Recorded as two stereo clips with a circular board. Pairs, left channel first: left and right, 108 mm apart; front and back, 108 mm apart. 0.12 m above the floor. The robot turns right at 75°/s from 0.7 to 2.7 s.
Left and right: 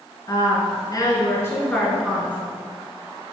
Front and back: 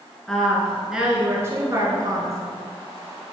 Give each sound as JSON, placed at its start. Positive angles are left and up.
{"t": 0.3, "sound": "a woman speaking", "azimuth_deg": 80, "distance_m": 1.5}